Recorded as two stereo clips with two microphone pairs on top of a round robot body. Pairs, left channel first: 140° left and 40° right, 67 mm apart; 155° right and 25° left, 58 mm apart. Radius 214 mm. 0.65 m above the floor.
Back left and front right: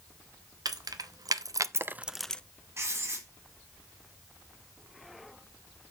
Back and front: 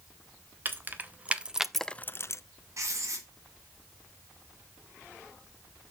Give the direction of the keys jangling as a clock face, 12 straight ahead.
1 o'clock.